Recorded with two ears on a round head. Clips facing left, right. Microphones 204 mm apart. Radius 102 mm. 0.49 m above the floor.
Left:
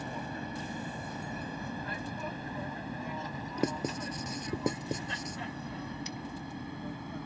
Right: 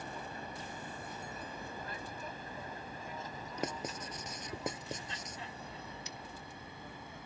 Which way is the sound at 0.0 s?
55° left (ahead or behind).